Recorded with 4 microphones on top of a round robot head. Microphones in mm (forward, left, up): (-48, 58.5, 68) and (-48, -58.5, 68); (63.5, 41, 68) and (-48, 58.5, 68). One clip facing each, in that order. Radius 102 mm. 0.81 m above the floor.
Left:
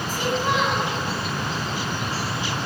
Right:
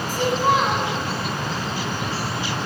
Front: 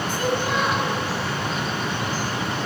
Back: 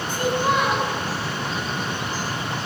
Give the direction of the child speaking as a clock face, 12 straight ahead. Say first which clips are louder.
Right 4 dB, back 4 dB; 5 o'clock.